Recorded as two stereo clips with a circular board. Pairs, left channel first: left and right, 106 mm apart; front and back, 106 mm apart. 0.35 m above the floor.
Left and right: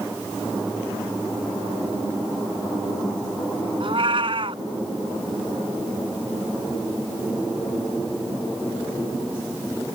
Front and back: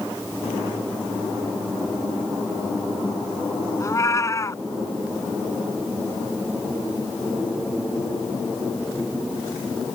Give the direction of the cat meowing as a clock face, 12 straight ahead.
2 o'clock.